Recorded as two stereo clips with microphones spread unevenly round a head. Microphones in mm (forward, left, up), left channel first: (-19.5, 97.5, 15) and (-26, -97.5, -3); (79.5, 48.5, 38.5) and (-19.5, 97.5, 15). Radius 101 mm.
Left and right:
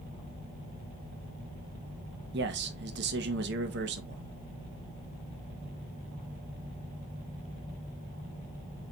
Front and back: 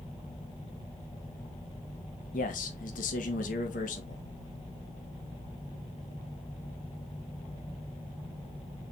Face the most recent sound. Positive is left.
turn(degrees=-50)